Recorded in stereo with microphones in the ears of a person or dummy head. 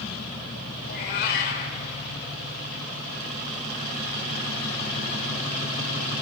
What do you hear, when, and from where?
0.8 s a cat meowing: 60° left (ahead or behind), 1.8 m